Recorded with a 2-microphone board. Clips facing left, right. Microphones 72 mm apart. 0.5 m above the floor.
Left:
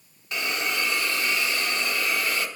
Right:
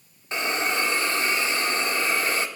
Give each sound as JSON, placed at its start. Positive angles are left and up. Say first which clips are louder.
{"t": 0.3, "sound": "a hiss", "louder": "right 3 dB", "side_deg": -30, "distance_m": 1.0}